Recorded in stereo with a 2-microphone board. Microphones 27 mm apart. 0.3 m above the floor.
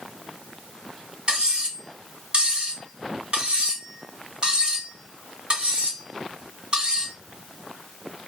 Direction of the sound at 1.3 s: 35° right (ahead or behind).